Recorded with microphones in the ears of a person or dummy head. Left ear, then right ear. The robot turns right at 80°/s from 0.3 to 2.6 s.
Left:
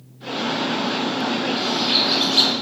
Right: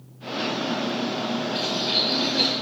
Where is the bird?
25° right, 0.7 m; by 2.5 s 50° left, 0.7 m.